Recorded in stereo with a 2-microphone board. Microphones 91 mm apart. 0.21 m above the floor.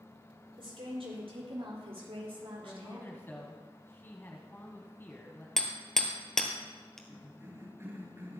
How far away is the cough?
About 3 m.